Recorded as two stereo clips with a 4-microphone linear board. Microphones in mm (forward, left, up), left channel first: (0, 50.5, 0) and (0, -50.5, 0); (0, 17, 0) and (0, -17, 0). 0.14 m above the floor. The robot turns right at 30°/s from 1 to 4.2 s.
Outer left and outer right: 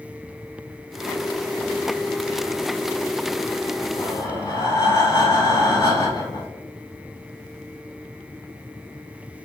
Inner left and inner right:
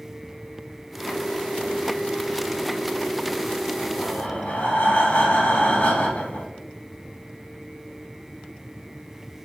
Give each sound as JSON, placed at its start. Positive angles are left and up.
{"t": 4.0, "sound": "breathing", "side_deg": 50, "distance_m": 0.7}